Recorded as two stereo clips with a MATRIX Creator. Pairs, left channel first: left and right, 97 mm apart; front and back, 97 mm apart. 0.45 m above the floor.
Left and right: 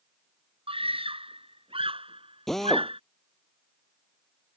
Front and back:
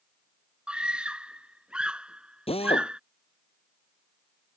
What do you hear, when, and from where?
0.7 s a scream: 100° right
2.5 s a drill: 5° left